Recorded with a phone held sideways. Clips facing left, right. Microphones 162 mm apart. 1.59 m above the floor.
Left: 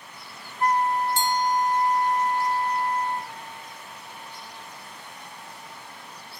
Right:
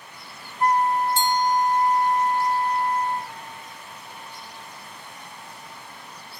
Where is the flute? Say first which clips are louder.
Right 2 dB; 30° right (ahead or behind).